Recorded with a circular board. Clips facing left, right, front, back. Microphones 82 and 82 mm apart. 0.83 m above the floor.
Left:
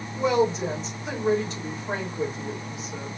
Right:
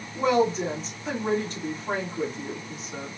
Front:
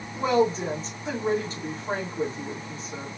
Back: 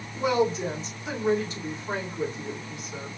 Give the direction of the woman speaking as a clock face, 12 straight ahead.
2 o'clock.